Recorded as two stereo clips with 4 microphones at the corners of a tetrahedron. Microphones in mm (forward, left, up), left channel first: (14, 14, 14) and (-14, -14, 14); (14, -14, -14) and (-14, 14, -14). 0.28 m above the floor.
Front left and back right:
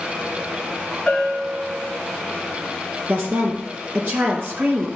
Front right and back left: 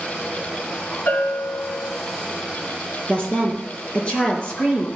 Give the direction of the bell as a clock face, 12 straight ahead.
1 o'clock.